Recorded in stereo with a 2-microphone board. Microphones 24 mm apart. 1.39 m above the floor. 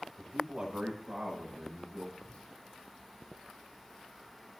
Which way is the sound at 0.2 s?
55° right (ahead or behind).